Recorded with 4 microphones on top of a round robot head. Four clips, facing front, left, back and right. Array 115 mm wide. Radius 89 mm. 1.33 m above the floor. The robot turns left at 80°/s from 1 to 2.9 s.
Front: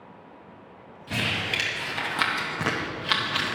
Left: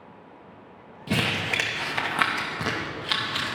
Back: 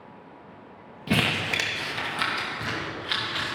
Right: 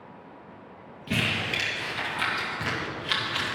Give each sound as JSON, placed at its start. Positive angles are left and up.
{"t": 1.1, "sound": "crumpling", "azimuth_deg": 160, "distance_m": 0.8}